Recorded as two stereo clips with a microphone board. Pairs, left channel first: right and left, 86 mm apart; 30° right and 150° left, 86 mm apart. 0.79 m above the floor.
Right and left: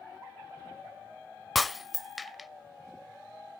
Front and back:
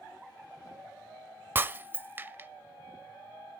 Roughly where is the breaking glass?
Behind.